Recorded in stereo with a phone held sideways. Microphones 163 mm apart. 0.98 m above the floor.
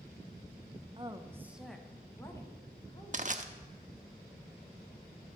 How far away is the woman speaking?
About 0.8 m.